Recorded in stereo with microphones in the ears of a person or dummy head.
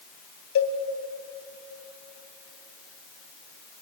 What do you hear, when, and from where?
0.6 s a cowbell: 55° left (ahead or behind), 2.5 m